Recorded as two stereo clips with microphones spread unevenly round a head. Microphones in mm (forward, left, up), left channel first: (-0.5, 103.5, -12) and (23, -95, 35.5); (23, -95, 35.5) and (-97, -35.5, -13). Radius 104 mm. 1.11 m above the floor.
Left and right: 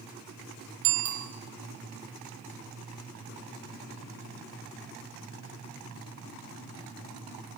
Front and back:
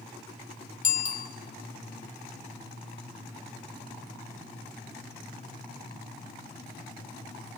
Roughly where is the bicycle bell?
Ahead right.